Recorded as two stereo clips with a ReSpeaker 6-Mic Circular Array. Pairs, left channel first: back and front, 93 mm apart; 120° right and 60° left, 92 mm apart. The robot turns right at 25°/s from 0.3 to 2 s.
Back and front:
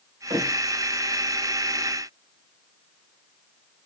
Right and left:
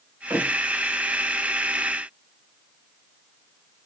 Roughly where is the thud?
Ahead.